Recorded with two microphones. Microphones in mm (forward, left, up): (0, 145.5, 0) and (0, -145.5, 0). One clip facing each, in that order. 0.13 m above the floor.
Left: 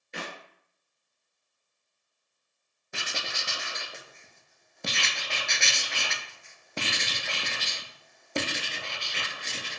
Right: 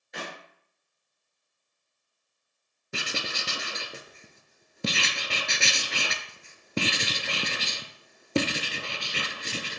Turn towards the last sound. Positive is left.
turn(degrees=-40)  # may be behind; listen again after turning